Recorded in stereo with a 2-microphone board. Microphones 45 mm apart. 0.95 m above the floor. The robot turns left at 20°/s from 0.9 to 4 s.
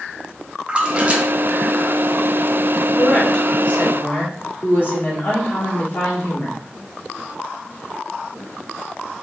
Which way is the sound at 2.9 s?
20° left (ahead or behind).